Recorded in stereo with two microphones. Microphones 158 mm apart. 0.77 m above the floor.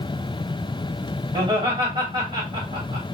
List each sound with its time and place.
1.3 s laughter: 30° right (ahead or behind), 1.6 m